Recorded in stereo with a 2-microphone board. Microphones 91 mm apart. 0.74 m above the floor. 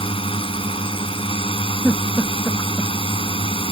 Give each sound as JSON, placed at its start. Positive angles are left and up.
{"t": 0.0, "sound": "a drone", "side_deg": 80}
{"t": 1.8, "sound": "a giggle", "side_deg": 5}